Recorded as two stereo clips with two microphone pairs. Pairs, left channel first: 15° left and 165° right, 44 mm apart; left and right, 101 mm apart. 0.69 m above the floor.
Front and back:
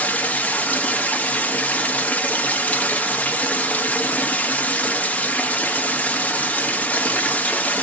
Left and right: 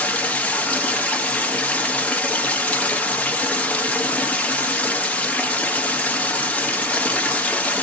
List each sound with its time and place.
0.0 s running water: 25° left, 0.9 m